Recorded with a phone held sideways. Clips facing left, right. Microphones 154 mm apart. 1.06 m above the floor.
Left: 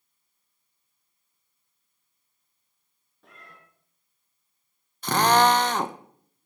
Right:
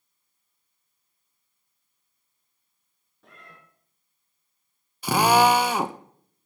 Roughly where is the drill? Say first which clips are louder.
Right 1 dB; centre.